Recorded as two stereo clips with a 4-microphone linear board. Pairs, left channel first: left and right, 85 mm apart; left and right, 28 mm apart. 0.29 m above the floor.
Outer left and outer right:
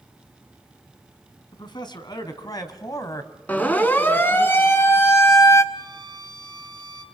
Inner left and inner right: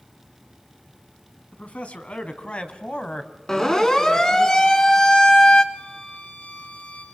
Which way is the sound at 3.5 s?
20° left (ahead or behind).